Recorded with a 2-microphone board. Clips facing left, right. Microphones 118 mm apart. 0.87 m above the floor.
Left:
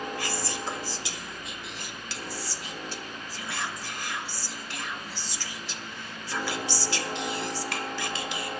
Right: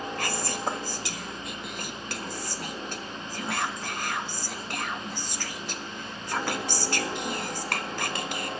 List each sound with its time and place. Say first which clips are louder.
0.2 s whispering: right 2 dB; 50° right (ahead or behind), 1.3 m